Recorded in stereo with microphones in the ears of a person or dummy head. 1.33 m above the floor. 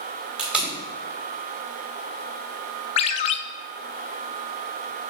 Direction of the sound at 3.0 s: 35° left (ahead or behind).